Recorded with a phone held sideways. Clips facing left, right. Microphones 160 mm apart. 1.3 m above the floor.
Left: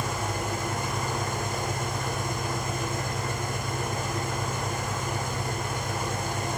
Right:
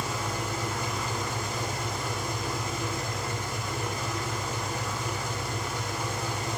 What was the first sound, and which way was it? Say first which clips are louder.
An engine running: left 2 dB; 50° left (ahead or behind).